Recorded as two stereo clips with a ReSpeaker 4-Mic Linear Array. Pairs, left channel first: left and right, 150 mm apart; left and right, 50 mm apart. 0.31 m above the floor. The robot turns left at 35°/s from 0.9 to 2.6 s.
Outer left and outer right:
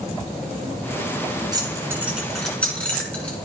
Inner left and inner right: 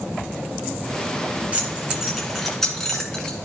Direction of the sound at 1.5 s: 25° right (ahead or behind).